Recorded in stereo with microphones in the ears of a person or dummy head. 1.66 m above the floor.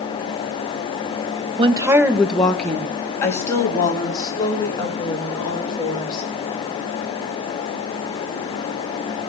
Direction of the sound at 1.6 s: 35° right (ahead or behind).